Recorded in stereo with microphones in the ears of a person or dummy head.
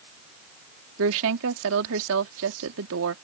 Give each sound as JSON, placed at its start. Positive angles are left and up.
{"t": 1.0, "sound": "a woman speaking", "side_deg": -70}